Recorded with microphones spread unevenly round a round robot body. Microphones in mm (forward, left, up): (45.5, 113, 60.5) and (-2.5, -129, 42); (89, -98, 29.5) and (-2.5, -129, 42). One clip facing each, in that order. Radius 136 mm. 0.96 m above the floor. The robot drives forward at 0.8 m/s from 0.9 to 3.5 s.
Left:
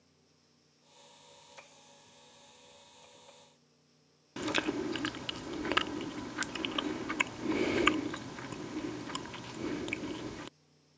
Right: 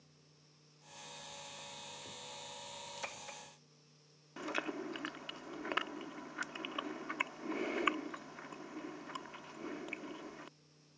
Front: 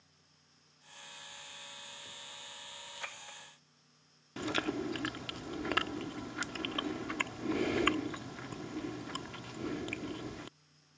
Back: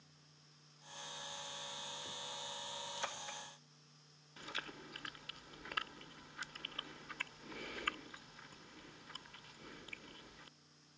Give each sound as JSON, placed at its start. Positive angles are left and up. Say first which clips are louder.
{"t": 4.4, "sound": "chewing", "louder": "left 8 dB, front 15 dB", "azimuth_deg": 40}